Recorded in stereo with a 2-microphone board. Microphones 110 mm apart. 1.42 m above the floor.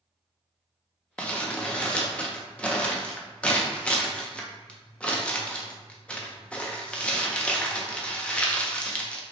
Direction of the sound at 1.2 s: 10° left (ahead or behind).